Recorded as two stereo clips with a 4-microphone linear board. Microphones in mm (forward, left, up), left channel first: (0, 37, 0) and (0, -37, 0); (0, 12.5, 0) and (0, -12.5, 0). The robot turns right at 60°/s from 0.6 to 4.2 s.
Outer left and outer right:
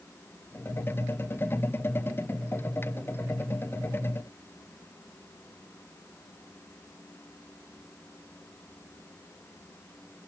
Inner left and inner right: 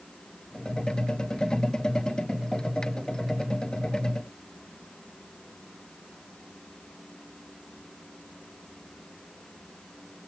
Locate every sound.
Only background noise.